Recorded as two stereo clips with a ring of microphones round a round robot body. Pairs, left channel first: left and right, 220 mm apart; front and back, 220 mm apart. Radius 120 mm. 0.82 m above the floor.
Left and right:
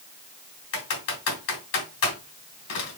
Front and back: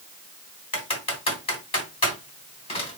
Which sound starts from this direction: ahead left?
Typing on a keyboard, at 0.7 s.